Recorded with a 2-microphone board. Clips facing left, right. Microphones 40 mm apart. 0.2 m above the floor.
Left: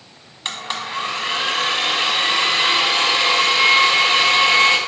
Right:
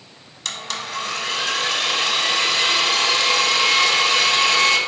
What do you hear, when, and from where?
0.5 s a blender: 30° left (ahead or behind), 0.5 m